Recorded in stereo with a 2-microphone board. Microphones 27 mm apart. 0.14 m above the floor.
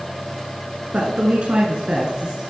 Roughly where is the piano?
No piano in this recording.